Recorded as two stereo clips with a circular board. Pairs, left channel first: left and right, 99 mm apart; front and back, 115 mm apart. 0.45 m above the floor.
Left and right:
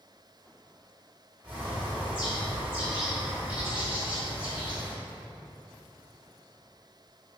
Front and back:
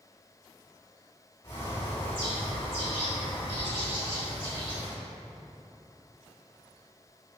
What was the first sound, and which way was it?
A bird, 20° right.